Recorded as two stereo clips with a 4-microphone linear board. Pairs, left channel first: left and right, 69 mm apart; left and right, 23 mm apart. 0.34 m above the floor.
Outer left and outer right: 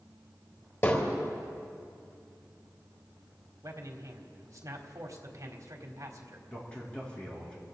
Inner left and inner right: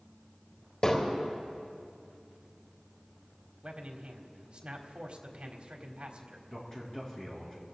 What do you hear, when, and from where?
0.8 s hammering: 45° left (ahead or behind), 3.5 m
3.6 s a man speaking: 55° right (ahead or behind), 1.7 m
6.5 s a man speaking: 15° left (ahead or behind), 4.5 m